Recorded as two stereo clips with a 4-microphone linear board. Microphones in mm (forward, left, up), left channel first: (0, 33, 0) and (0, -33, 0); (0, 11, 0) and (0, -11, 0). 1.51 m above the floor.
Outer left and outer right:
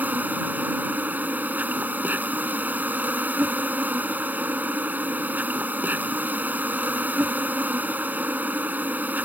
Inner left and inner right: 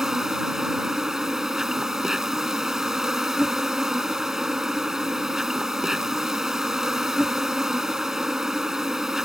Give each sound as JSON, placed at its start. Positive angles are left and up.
{"t": 0.0, "sound": "an insect", "side_deg": -25}